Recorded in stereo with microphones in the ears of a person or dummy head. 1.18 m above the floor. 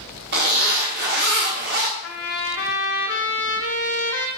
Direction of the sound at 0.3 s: 50° right (ahead or behind).